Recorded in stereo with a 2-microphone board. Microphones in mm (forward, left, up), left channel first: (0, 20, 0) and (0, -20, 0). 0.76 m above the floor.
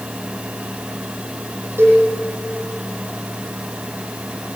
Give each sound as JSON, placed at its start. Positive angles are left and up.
{"t": 1.8, "sound": "a cowbell", "side_deg": -70, "distance_m": 9.5}